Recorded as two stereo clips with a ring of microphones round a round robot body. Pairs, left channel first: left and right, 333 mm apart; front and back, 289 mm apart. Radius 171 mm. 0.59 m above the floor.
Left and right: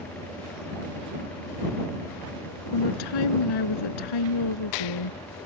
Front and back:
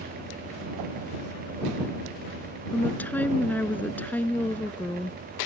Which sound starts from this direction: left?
A woman speaking, at 2.7 s.